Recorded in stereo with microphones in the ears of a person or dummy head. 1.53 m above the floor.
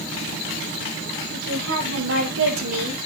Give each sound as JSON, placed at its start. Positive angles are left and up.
{"t": 1.3, "sound": "a woman speaking", "side_deg": -70, "distance_m": 4.5}